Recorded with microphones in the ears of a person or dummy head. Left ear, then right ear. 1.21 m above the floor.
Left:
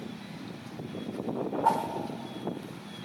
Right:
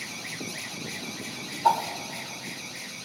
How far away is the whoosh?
About 1.1 m.